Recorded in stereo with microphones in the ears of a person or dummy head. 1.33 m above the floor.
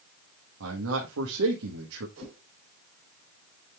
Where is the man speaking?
85° right, 1.5 m.